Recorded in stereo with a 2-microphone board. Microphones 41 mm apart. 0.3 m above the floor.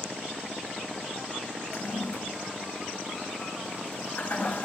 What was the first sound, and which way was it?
A toilet flushing, 45° left (ahead or behind).